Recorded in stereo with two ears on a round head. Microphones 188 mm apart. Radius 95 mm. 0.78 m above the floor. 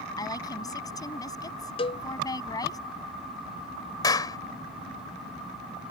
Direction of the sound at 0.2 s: 20° left (ahead or behind).